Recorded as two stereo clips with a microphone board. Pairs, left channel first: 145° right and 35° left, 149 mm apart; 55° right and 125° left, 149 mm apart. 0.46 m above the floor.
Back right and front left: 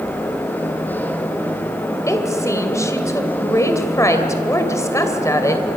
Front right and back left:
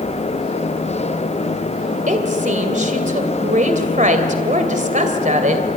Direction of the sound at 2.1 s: 145° left.